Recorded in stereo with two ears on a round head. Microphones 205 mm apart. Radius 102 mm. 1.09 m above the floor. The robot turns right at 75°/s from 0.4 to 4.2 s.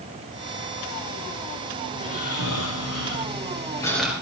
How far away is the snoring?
About 6 m.